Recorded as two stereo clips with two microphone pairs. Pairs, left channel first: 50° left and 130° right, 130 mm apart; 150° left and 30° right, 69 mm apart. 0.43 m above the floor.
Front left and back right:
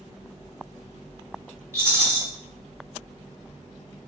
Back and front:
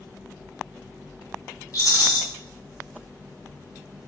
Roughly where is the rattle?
Behind.